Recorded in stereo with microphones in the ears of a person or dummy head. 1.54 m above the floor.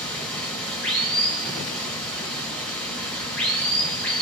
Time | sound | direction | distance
0.0 | running water | 5° left (ahead or behind) | 1.0 m